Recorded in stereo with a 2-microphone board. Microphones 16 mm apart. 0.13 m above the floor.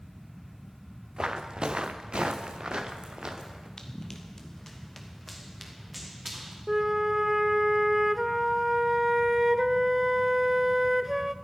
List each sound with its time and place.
1.2 s footsteps: 45° right (ahead or behind), 1.8 m; by 3.7 s 50° right (ahead or behind), 3.5 m
3.8 s running footsteps: 45° left (ahead or behind), 2 m; by 6.6 s 5° right (ahead or behind), 4 m
6.7 s a flute: 25° right (ahead or behind), 0.6 m